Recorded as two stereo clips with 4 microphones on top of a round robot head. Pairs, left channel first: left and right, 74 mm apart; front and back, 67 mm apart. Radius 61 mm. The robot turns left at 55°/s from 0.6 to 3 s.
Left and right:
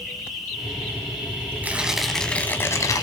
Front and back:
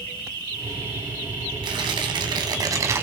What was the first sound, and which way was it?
An insect, straight ahead.